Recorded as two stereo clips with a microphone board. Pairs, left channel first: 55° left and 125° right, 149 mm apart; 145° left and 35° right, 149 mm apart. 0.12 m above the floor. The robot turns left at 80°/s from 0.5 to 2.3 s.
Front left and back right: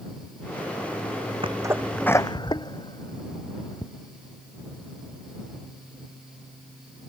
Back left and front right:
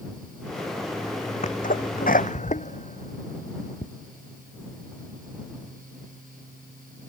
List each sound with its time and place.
1.4 s a sneeze: 175° right; by 3.9 s 115° left